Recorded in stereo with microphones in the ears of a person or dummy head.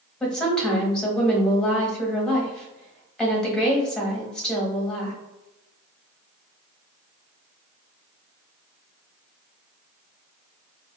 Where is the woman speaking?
5° left (ahead or behind), 1.2 m.